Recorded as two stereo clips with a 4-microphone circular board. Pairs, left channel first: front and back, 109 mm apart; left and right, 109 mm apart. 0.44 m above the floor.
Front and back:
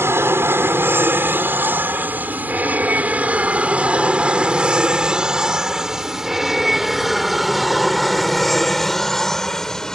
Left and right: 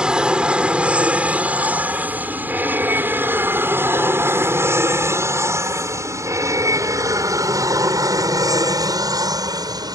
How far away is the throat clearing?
I don't hear throat clearing.